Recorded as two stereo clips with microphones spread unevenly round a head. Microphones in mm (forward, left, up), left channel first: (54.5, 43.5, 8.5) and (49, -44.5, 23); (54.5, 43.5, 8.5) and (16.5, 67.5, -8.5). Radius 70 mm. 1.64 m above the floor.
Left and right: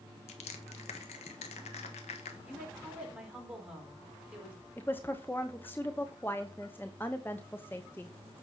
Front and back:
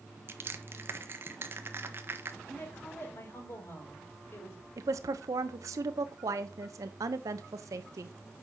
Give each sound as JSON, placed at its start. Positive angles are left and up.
{"t": 0.3, "sound": "crushing", "azimuth_deg": 105, "distance_m": 1.4}
{"t": 2.4, "sound": "a woman speaking", "azimuth_deg": -15, "distance_m": 5.5}
{"t": 4.8, "sound": "a woman speaking", "azimuth_deg": 165, "distance_m": 0.9}